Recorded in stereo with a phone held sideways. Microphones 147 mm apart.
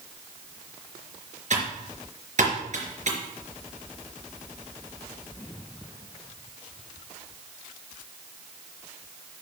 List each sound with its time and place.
1.5 s typing on a keyboard: 55° right (ahead or behind), 4 m